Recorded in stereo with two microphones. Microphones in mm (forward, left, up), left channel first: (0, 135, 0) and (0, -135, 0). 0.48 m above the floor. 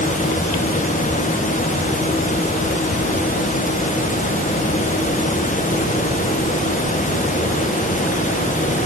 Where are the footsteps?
I don't hear footsteps.